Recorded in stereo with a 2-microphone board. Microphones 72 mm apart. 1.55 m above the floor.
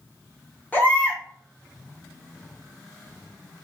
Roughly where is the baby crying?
Left.